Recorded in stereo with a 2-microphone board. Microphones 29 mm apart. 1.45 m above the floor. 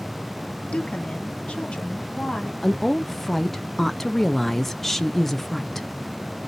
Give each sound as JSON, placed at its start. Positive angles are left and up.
{"t": 0.7, "sound": "a woman speaking", "side_deg": 45, "distance_m": 0.7}
{"t": 2.6, "sound": "a woman speaking", "side_deg": 10, "distance_m": 0.5}